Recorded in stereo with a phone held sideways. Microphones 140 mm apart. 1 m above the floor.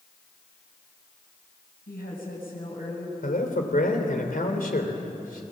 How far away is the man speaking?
About 3 m.